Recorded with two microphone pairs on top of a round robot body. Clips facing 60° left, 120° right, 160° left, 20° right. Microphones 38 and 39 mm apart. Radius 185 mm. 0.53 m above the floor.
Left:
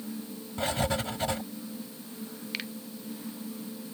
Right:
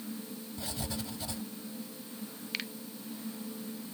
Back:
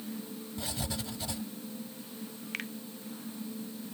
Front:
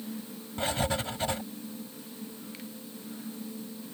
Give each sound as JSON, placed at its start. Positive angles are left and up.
{"t": 0.6, "sound": "writing", "azimuth_deg": 20}
{"t": 2.5, "sound": "a finger snap", "azimuth_deg": 140}